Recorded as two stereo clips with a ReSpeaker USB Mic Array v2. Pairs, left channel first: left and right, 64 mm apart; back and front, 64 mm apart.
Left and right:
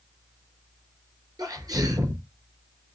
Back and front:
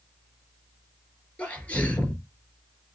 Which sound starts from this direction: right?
A sneeze, at 1.4 s.